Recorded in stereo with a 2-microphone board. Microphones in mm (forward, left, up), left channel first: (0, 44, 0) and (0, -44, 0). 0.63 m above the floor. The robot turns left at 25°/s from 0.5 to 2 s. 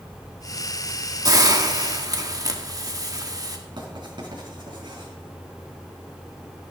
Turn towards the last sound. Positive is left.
turn(degrees=-60)  # may be behind; listen again after turning